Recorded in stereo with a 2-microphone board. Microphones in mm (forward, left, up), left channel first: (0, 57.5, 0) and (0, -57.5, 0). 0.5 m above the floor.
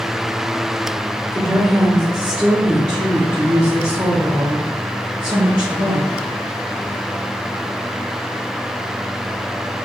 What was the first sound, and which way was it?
A woman speaking, 15° left (ahead or behind).